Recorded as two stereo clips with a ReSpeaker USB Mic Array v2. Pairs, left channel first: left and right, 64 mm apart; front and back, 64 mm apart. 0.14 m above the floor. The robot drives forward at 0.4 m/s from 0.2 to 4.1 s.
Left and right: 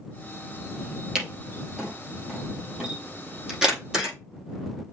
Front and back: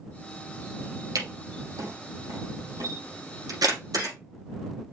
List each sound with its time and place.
1.1 s a camera shutter: 170° right, 4 m; by 4.2 s 175° right, 5.5 m